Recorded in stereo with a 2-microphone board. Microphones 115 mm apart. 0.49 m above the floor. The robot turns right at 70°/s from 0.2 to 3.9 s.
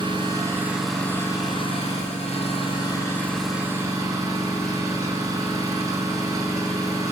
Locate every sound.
0.0 s an engine running: 45° right, 7 m; by 7.1 s 150° right, 7 m